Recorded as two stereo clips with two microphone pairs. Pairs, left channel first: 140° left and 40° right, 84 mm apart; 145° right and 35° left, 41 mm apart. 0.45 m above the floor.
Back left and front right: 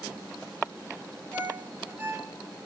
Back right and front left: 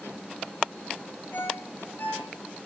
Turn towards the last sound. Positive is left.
turn(degrees=-110)